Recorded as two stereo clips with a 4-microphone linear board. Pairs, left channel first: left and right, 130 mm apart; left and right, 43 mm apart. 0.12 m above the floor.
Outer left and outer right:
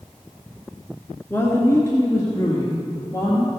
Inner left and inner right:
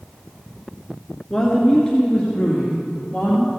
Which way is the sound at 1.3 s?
15° left (ahead or behind).